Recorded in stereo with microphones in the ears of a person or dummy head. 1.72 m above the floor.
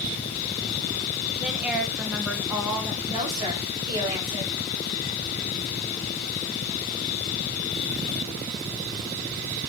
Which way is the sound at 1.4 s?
5° right (ahead or behind).